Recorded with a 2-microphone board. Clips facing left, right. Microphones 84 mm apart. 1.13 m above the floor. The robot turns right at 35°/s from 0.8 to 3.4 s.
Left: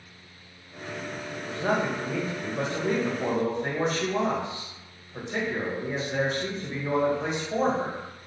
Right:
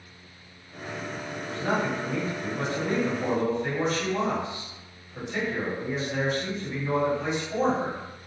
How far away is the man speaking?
About 0.9 m.